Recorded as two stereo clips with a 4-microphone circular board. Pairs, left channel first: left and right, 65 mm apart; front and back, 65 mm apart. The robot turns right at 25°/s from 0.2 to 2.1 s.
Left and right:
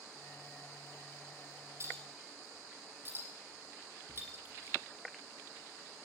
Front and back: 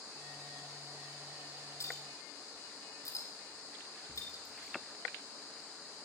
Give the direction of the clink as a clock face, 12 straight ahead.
1 o'clock.